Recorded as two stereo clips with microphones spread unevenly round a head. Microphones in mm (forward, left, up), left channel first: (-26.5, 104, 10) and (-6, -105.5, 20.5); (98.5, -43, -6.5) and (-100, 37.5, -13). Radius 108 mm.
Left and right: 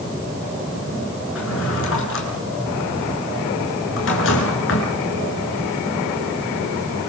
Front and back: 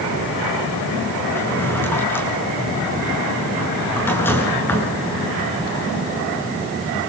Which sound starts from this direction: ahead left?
A drawer, at 1.4 s.